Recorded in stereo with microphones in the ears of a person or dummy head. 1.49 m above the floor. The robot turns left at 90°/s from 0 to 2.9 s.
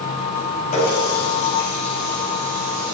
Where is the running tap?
40° left (ahead or behind), 2.0 m; by 2.9 s 55° right (ahead or behind), 2.0 m.